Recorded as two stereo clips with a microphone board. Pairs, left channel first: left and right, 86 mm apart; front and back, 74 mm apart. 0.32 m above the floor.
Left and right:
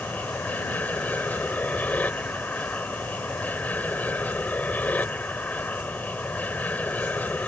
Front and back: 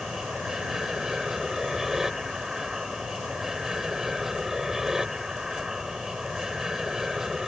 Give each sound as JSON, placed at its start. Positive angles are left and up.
{"t": 0.0, "sound": "an aircraft", "azimuth_deg": 110}